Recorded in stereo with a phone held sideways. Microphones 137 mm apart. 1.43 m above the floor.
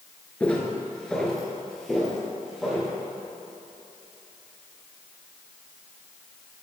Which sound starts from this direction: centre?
Footsteps, at 0.4 s.